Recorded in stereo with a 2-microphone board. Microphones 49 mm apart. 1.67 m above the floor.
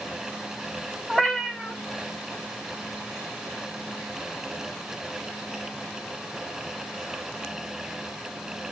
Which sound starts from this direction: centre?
A cat meowing, at 1.1 s.